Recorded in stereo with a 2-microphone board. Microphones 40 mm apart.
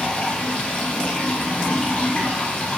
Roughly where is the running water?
Left.